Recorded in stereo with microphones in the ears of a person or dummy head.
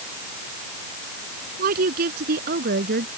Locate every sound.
1.6 s a woman speaking: 55° right (ahead or behind)